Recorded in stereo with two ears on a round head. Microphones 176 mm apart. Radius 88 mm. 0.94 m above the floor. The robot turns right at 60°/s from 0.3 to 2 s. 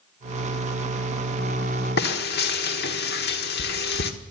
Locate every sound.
2.0 s frying: 50° left (ahead or behind), 1.4 m; by 4.1 s 55° left (ahead or behind), 1.4 m